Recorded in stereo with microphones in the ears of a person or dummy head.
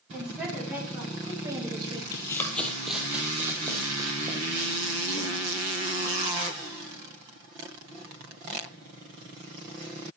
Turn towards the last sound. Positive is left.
turn(degrees=-35)  # may be behind; listen again after turning